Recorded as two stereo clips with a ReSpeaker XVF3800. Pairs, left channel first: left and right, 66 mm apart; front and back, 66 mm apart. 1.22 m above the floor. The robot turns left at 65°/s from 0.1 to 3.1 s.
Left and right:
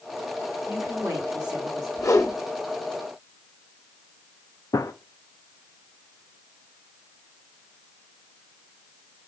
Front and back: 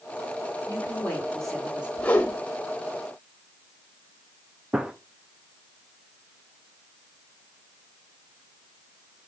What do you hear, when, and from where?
0.7 s a woman speaking: 30° right, 4 m; by 1.9 s 110° right, 4 m
2.0 s a whoosh: 65° left, 0.8 m; by 2.4 s 40° left, 0.8 m
4.7 s a gunshot: 105° left, 0.5 m